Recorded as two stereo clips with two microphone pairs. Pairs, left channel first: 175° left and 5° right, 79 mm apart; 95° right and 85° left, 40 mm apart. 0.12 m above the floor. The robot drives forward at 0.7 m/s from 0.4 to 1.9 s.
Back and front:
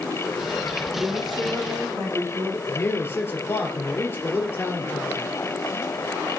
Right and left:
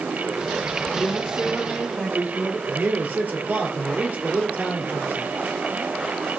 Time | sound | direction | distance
0.9 | a woman speaking | 15° left | 5.5 m
2.7 | a man speaking | 120° left | 2.5 m